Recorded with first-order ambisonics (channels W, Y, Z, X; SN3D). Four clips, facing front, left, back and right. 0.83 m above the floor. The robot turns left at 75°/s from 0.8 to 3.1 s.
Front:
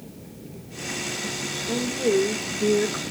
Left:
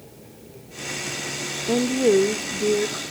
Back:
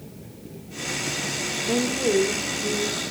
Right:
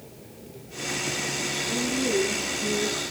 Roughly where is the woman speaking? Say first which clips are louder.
Left 9 dB, even; behind left.